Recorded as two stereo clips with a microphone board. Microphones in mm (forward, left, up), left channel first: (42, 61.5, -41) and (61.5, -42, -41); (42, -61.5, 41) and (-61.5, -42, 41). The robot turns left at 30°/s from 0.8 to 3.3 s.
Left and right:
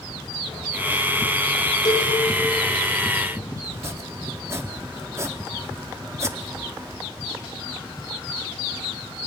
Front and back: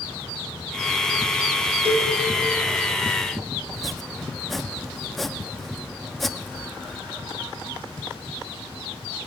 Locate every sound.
1.9 s a cowbell: 145° left, 5.5 m; by 2.1 s 140° left, 5.5 m
3.7 s chopping: 100° right, 0.8 m